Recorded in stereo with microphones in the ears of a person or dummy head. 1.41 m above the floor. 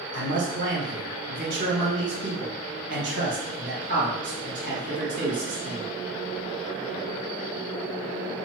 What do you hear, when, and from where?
0.1 s a man speaking: 70° right (ahead or behind), 1.5 m